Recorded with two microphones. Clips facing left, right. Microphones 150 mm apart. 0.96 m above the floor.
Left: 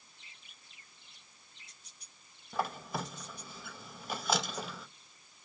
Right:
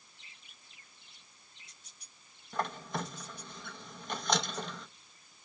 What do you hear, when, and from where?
2.5 s a squeak: 5° left (ahead or behind), 0.7 m